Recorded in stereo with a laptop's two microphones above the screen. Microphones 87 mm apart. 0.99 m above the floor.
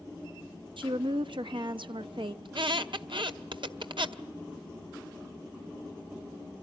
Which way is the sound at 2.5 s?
70° right (ahead or behind).